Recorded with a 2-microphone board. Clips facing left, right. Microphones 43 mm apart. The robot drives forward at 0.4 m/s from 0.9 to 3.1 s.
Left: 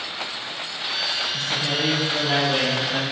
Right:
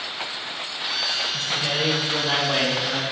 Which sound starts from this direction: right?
A man speaking, at 1.3 s.